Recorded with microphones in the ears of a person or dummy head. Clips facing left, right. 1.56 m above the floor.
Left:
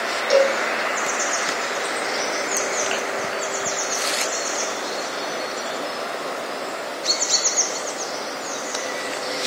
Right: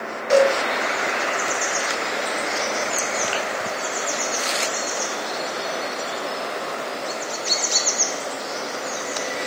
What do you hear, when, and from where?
0.3 s a cowbell: 15° left (ahead or behind), 3 m